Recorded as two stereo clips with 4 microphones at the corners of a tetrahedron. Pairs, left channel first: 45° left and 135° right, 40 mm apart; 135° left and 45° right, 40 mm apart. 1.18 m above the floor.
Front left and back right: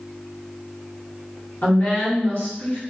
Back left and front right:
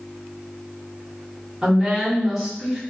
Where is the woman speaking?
35° left, 1.1 m.